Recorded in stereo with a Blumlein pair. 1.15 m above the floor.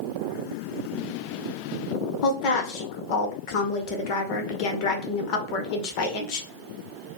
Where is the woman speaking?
45° left, 0.8 m.